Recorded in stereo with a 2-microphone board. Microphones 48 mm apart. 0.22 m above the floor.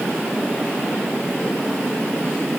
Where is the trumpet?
I don't hear a trumpet.